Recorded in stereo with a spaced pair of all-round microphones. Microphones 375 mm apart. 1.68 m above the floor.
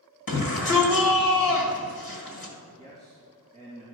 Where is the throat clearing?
No throat clearing in this recording.